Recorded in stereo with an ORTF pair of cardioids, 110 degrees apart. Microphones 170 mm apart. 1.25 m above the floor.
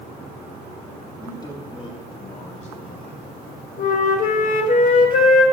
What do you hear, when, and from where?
1.2 s a man speaking: 20° left, 2.5 m; by 3.3 s 50° left, 3 m
3.8 s a flute: 50° left, 1.6 m